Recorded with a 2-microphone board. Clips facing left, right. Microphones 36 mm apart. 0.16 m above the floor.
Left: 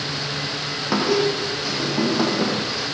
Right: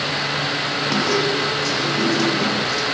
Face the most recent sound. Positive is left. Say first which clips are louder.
# left 1 dB
turn(degrees=20)  # may be behind; listen again after turning